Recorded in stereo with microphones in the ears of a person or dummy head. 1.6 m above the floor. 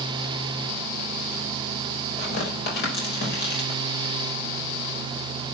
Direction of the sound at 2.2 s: 65° left (ahead or behind).